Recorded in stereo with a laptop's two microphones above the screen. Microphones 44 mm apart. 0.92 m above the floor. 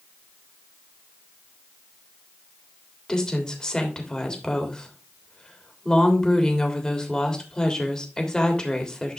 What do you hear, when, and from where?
3.1 s a woman speaking: 20° left (ahead or behind), 3 m